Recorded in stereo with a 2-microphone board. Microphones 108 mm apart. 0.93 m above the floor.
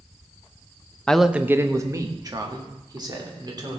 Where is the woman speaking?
10° left (ahead or behind), 0.5 m; by 3.8 s 40° right (ahead or behind), 3 m.